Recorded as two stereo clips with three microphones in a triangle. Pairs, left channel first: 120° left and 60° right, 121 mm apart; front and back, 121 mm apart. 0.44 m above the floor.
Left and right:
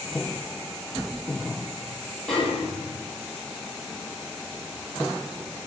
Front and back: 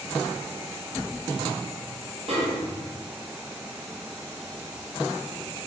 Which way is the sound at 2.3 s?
155° right.